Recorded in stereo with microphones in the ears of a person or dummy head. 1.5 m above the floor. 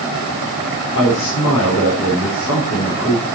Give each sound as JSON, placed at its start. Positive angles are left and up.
{"t": 0.9, "sound": "a man speaking", "side_deg": 70, "distance_m": 4.5}